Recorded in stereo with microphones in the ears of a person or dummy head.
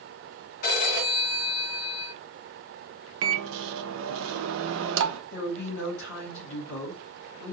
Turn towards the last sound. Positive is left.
turn(degrees=70)  # may be behind; listen again after turning